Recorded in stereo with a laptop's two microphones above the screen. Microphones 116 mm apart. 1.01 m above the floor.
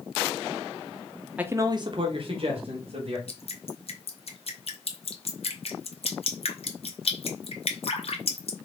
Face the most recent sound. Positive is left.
turn(degrees=60)  # may be behind; listen again after turning